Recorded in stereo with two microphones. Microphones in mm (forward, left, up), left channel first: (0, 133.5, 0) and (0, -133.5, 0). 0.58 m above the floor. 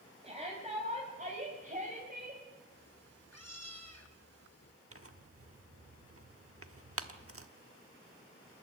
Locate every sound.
0.2 s a shout: 25° right (ahead or behind), 4.5 m; by 2.4 s 35° right (ahead or behind), 4 m
2.7 s a cat meowing: 65° left (ahead or behind), 3 m
4.9 s tearing paper: 55° right (ahead or behind), 1.1 m